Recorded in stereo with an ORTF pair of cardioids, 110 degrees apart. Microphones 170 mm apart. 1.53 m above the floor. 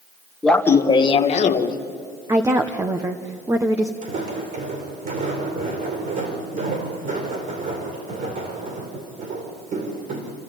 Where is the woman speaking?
15° right, 1.2 m.